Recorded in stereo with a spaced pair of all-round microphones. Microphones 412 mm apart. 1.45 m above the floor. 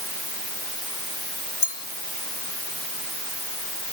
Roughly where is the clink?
Left.